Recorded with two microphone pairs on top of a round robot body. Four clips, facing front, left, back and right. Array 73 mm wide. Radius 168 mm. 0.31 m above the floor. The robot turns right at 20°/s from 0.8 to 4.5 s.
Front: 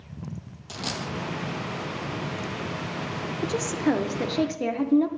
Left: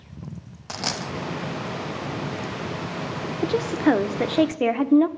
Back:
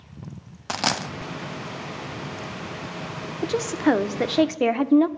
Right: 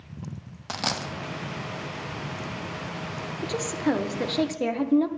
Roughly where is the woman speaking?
Behind left.